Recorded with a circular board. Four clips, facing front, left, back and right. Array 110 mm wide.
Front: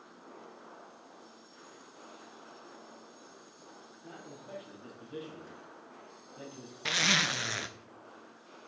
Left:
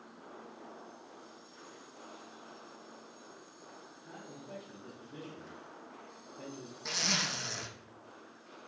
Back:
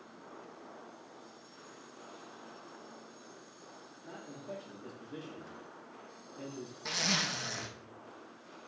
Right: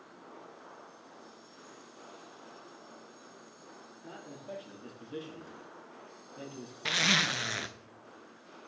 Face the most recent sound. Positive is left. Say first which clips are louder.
# right 6 dB, front 5 dB
turn(degrees=-50)